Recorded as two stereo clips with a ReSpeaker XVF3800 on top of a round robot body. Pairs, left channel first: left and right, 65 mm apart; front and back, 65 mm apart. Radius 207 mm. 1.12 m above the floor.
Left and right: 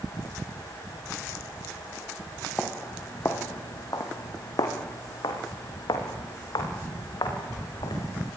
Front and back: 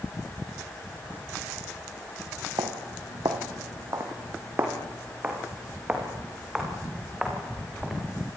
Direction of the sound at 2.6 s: 165° left.